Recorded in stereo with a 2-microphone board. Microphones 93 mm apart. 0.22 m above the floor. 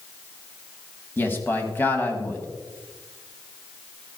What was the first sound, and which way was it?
A man speaking, 20° left (ahead or behind).